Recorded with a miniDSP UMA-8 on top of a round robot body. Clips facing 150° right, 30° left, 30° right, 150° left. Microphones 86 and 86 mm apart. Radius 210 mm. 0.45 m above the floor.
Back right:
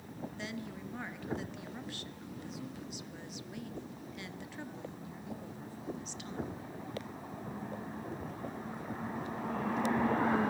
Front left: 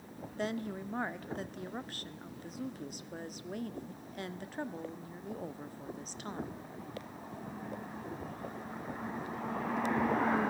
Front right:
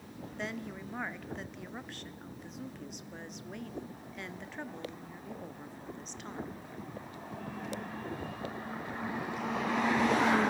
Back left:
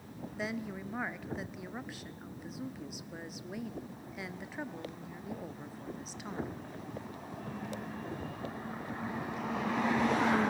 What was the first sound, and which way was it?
A woman speaking, 65° left.